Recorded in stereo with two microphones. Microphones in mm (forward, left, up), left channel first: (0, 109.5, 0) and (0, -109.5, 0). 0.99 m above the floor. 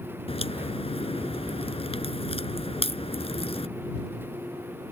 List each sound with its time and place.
0.3 s a crack: 25° left (ahead or behind)